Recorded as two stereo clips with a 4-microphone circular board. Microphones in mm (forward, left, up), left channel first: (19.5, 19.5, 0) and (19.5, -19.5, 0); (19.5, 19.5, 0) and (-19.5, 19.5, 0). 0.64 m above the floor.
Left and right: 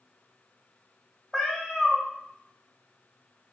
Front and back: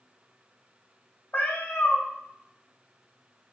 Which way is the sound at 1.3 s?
10° left.